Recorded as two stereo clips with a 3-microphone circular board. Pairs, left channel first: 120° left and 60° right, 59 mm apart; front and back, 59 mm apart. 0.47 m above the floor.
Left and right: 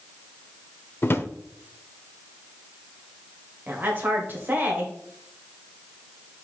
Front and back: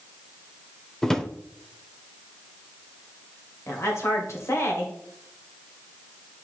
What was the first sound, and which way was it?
A drawer, 80° left.